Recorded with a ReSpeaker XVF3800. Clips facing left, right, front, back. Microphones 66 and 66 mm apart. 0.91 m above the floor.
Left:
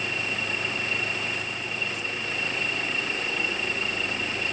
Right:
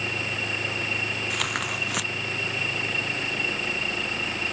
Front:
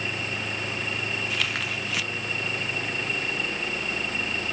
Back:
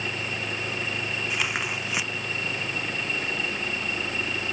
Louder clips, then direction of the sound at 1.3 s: Right 4 dB, back 1 dB; 110° right.